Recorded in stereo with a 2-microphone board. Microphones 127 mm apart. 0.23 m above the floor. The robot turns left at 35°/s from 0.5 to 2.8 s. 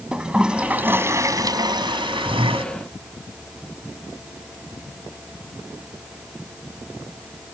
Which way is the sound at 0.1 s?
10° right.